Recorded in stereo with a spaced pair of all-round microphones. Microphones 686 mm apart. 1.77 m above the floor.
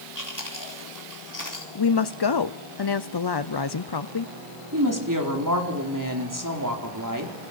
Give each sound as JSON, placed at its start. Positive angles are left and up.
{"t": 0.1, "sound": "chewing", "side_deg": 25, "distance_m": 4.0}
{"t": 1.8, "sound": "a woman speaking", "side_deg": 35, "distance_m": 0.7}
{"t": 4.7, "sound": "a woman speaking", "side_deg": -25, "distance_m": 4.0}